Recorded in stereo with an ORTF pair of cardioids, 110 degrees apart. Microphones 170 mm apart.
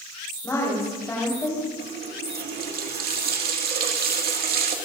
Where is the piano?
No piano in this recording.